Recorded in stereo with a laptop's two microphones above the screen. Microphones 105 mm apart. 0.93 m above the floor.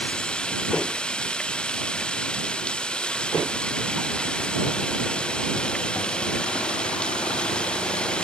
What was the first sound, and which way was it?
Running water, 10° left (ahead or behind).